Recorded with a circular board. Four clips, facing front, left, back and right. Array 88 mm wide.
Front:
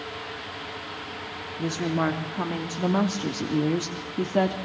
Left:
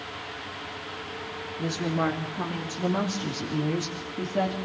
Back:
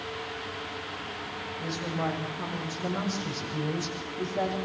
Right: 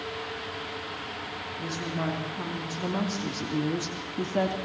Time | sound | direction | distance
1.6 | a woman speaking | 25° left | 3.5 m